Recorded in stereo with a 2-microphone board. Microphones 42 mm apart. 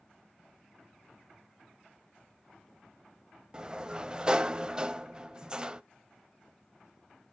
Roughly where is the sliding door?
Right.